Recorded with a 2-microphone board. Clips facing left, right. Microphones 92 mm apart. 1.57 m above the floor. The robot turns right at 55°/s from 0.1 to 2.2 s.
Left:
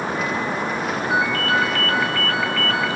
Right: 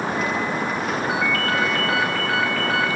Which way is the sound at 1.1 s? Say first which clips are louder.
Left 5 dB; 60° right.